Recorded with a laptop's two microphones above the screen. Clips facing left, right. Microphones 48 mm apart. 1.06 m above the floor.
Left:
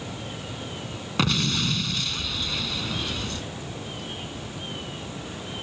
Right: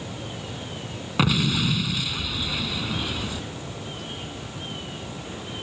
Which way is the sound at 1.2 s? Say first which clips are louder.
Right 2 dB; 10° right (ahead or behind).